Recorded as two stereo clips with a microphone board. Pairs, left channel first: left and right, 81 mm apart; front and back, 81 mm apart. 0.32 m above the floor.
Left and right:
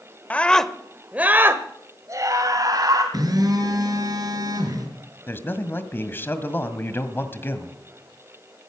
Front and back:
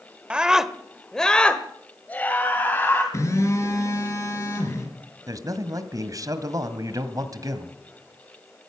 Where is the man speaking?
150° left, 1.8 m.